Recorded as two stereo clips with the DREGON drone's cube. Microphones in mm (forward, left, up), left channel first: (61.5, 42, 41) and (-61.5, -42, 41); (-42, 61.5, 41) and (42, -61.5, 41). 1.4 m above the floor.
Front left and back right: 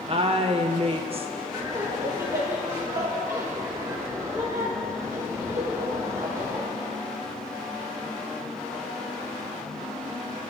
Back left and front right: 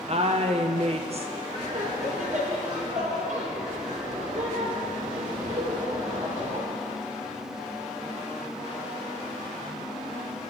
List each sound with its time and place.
0.1 s a woman speaking: 100° right, 1.3 m
1.5 s laughter: 75° right, 5 m